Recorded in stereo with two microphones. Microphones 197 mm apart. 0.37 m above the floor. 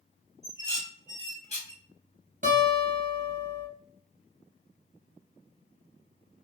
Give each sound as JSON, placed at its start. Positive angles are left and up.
{"t": 0.4, "sound": "dishes clattering", "side_deg": 35, "distance_m": 1.1}
{"t": 2.4, "sound": "a guitar", "side_deg": -40, "distance_m": 1.6}